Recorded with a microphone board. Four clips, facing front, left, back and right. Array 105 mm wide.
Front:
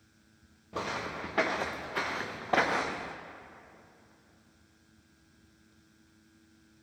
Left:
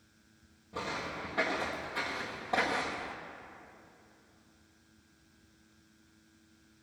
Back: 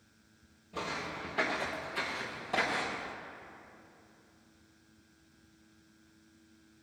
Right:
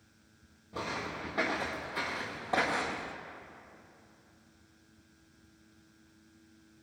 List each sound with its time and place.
0.7 s footsteps: straight ahead, 2.5 m; by 3.1 s 10° right, 1.0 m